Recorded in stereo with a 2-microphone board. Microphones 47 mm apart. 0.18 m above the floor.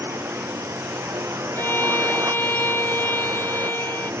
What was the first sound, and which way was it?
A drone, 70° right (ahead or behind).